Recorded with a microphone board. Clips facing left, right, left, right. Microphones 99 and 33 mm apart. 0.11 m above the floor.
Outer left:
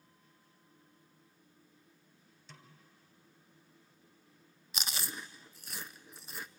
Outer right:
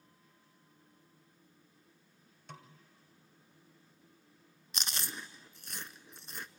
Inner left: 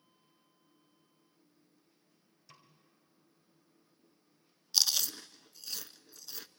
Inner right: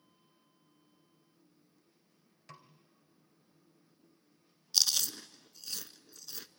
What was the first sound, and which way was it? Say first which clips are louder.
A snare drum: outer right 6 dB, inner right 6 dB; 60° right (ahead or behind).